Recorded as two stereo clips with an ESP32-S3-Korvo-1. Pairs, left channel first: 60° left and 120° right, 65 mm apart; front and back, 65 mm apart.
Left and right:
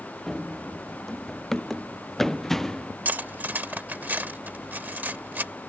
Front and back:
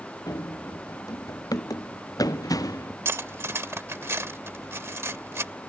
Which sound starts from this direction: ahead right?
Running footsteps, at 0.3 s.